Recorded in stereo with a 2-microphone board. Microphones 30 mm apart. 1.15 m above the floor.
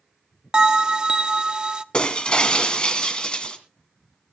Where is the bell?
35° right (ahead or behind), 0.8 m.